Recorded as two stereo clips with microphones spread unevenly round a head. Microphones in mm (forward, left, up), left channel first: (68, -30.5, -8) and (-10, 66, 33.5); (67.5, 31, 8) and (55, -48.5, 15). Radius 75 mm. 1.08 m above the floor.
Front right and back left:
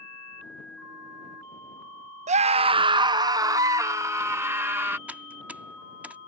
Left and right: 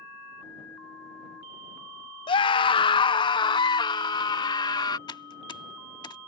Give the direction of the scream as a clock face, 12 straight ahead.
9 o'clock.